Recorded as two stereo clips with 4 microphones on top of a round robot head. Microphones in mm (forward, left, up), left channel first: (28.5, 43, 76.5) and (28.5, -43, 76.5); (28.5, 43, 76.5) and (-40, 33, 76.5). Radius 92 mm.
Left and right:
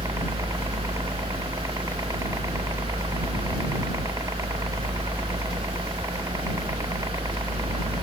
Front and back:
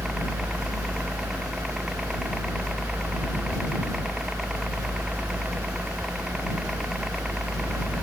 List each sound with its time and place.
0.0 s a helicopter: 95° right